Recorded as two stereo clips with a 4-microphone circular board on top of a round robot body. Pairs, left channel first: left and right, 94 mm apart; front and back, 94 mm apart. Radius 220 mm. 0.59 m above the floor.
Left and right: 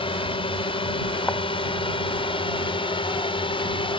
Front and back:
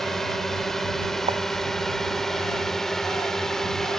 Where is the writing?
160° left.